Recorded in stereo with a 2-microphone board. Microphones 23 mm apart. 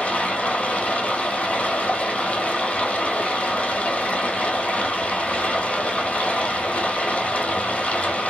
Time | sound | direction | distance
0.0 | running water | 75° left (ahead or behind) | 1.0 m